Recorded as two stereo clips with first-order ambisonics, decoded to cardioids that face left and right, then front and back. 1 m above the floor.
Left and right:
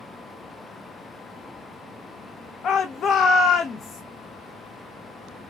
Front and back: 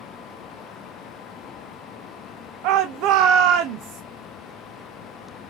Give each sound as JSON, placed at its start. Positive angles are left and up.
{"t": 2.6, "sound": "a shout", "azimuth_deg": 150, "distance_m": 0.6}